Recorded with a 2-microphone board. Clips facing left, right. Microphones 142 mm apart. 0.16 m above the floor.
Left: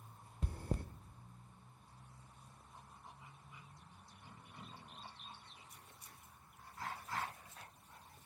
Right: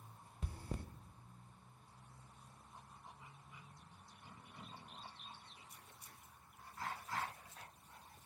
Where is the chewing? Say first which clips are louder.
Left 5 dB; 55° left (ahead or behind), 0.7 m.